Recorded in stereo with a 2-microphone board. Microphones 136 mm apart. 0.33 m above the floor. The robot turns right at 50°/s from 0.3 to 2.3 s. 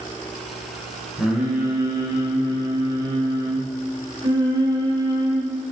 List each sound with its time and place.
1.2 s singing: 170° right, 1.0 m; by 5.5 s 115° right, 1.0 m